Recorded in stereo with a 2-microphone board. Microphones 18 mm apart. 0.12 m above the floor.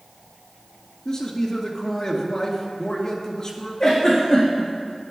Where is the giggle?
30° left (ahead or behind), 4.5 m.